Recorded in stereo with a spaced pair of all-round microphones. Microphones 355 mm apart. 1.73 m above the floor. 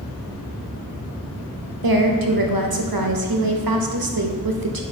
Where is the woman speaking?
75° right (ahead or behind), 0.6 m.